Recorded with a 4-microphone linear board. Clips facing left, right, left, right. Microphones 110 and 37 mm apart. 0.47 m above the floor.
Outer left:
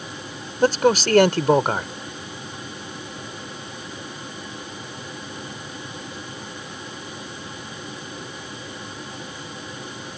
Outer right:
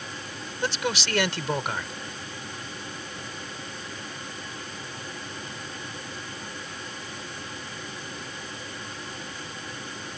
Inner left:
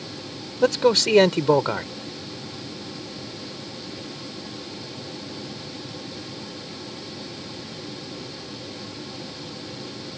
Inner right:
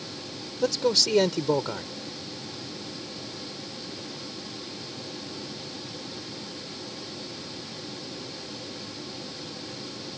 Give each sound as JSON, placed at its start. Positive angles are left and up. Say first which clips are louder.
{"t": 0.6, "sound": "a man speaking", "louder": "outer left 12 dB, inner left 6 dB", "side_deg": 45}